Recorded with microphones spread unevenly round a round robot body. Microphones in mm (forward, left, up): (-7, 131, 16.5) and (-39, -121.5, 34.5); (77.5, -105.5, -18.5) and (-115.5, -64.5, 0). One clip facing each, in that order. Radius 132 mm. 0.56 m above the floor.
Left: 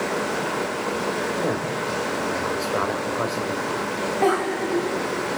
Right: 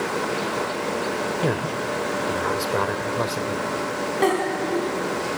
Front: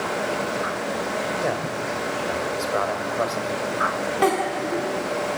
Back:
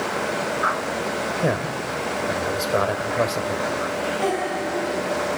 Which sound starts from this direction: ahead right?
A giggle, at 4.2 s.